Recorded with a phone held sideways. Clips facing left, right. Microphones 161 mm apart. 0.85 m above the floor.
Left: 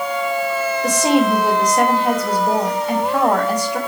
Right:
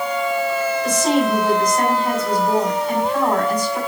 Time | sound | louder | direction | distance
0.8 | a woman speaking | left 3 dB | 80° left | 4 m